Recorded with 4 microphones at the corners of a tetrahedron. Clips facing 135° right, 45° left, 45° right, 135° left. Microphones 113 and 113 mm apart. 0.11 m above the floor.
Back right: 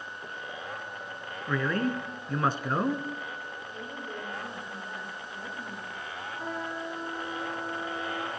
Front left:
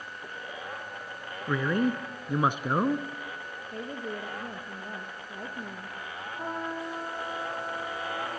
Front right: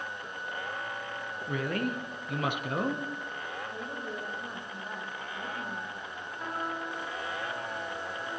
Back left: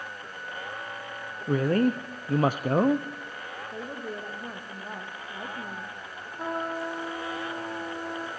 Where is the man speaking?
110° left, 1.5 m.